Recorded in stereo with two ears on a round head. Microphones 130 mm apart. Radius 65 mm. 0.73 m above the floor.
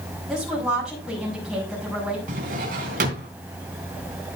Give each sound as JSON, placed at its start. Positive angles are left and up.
{"t": 0.3, "sound": "a woman speaking", "side_deg": -5, "distance_m": 5.5}
{"t": 2.3, "sound": "a drawer", "side_deg": -65, "distance_m": 3.0}